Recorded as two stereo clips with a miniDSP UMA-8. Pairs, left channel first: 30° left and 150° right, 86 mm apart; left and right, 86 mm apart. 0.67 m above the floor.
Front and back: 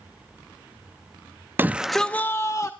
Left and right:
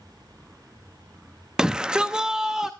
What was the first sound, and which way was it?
A shout, 160° right.